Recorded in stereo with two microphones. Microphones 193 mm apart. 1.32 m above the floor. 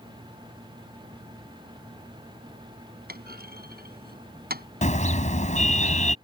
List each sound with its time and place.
3.1 s a clunk: 55° right (ahead or behind)
4.8 s a car horn: 40° left (ahead or behind)